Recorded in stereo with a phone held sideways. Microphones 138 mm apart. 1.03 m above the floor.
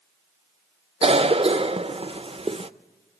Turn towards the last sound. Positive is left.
turn(degrees=-45)  # may be behind; listen again after turning